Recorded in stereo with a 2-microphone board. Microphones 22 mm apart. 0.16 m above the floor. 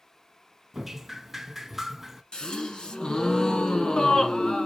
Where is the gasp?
40° left (ahead or behind), 0.9 m.